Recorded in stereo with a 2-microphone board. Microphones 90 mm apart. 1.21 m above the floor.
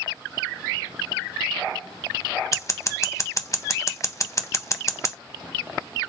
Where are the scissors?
35° left (ahead or behind), 0.7 m.